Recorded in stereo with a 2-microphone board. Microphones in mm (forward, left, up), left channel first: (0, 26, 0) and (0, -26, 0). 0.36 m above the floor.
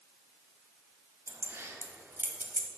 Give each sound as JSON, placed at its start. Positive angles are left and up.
{"t": 1.3, "sound": "keys jangling", "side_deg": -65, "distance_m": 1.2}